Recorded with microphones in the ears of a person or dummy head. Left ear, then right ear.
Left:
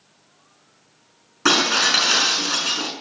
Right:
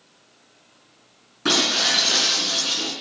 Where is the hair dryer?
No hair dryer in this recording.